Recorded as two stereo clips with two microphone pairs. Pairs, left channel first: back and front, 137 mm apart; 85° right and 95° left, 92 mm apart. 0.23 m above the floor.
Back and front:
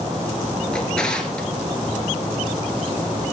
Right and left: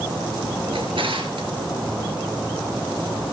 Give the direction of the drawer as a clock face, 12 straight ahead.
9 o'clock.